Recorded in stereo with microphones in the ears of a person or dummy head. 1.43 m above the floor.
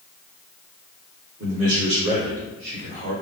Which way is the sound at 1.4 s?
80° right.